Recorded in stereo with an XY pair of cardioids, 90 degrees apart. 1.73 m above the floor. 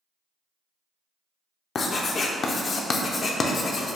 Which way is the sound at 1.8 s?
50° left.